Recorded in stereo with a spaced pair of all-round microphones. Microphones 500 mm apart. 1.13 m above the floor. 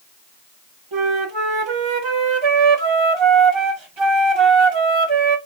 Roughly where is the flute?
Right.